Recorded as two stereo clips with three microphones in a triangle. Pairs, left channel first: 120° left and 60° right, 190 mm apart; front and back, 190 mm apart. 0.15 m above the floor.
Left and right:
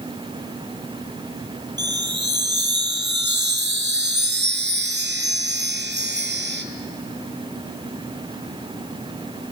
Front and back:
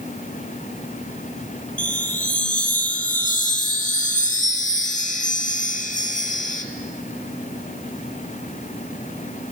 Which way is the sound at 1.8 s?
45° right.